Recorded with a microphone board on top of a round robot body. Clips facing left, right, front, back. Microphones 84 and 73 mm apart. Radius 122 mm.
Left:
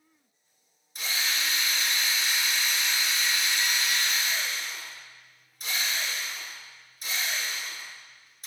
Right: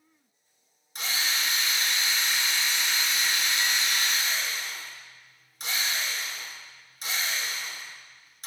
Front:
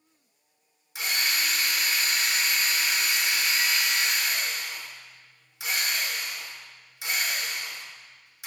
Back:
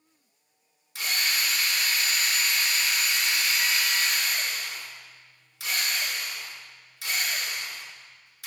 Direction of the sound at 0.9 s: 75° right.